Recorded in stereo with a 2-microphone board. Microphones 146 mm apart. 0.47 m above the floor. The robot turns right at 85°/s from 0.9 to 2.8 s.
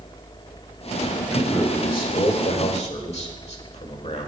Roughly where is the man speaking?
Ahead.